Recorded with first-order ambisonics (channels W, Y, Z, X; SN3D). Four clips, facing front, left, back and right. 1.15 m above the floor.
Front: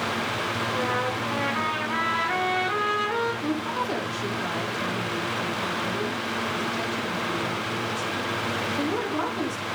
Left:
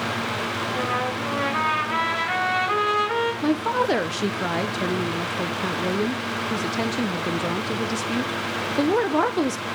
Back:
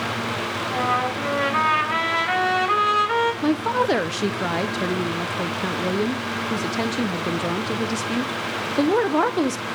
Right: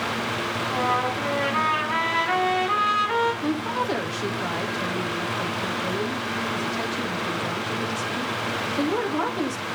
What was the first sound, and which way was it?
A trumpet, 170° left.